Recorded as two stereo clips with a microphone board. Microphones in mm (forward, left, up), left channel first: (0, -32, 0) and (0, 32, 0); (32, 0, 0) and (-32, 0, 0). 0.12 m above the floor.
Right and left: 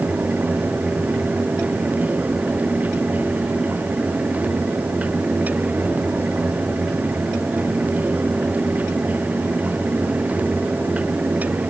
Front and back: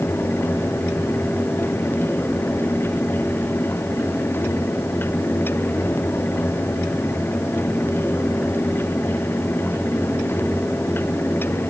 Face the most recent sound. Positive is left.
No sound to turn to.